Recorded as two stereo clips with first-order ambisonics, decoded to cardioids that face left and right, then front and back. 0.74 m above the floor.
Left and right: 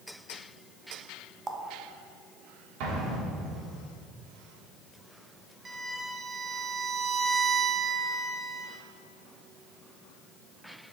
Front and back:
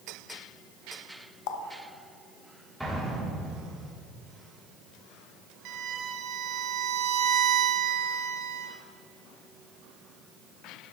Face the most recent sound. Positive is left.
turn(degrees=-160)